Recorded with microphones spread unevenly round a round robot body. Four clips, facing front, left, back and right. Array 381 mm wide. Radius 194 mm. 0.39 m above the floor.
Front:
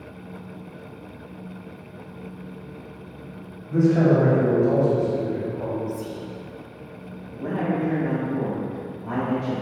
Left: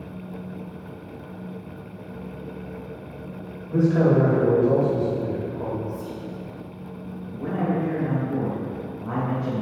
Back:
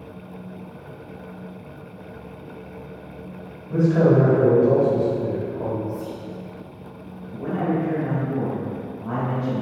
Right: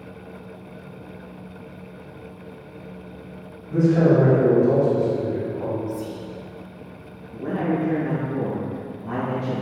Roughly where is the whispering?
Ahead right.